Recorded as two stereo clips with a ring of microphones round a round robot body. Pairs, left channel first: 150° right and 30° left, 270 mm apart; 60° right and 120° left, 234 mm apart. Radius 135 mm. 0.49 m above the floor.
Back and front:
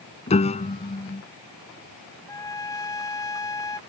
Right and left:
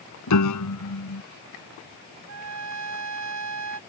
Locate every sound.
0.3 s a piano: 80° right
2.3 s a trumpet: 135° left